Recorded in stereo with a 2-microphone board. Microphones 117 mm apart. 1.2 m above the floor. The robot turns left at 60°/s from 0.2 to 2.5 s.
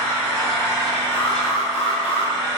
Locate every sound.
0.0 s an engine running: 170° left, 1.9 m; by 2.6 s 30° left, 1.9 m
1.1 s an alarm: 105° left, 1.9 m; by 2.3 s 35° left, 1.9 m